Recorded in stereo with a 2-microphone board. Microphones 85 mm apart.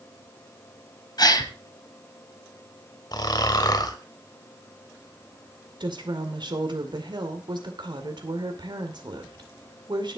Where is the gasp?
55° left (ahead or behind), 1.5 m.